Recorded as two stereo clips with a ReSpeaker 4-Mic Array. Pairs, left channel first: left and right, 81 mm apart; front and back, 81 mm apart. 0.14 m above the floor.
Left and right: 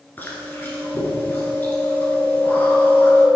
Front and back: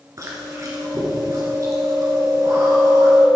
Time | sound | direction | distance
0.2 | chewing | 145° left | 1.7 m